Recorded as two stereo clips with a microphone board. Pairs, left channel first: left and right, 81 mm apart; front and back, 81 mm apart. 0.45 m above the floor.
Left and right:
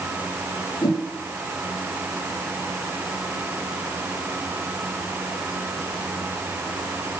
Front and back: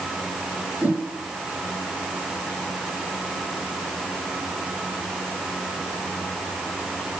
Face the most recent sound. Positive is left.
turn(degrees=110)